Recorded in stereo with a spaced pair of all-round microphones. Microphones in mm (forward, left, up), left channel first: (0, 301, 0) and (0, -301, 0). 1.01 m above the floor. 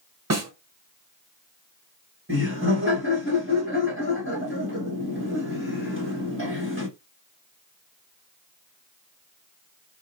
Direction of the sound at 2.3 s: 20° right (ahead or behind).